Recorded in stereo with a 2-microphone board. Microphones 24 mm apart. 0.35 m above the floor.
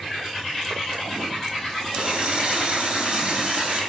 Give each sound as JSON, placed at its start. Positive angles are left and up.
{"t": 1.9, "sound": "a running tap", "side_deg": -40, "distance_m": 3.5}